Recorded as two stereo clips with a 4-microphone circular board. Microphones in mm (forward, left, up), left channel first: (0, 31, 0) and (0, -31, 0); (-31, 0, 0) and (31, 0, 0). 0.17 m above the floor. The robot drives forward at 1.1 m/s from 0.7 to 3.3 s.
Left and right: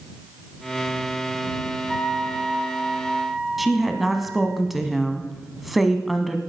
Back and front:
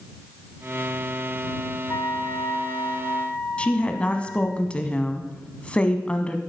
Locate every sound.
1.9 s a flute: 175° left, 1.1 m; by 4.6 s straight behind, 2.5 m
3.6 s a woman speaking: 175° right, 1.1 m